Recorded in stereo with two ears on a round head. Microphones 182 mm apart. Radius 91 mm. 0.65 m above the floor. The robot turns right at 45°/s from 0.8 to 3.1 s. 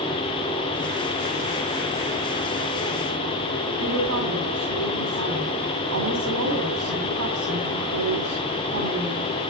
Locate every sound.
3.8 s a woman speaking: 65° right (ahead or behind), 6.5 m